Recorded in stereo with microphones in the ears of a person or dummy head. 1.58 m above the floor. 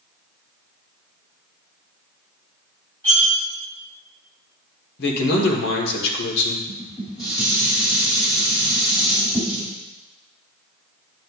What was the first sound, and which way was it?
Cutlery clinking, 15° left (ahead or behind).